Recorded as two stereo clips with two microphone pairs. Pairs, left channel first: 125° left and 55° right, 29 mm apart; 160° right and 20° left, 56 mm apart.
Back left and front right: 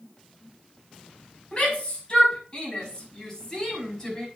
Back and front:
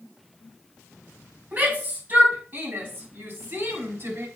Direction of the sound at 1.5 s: 80° left.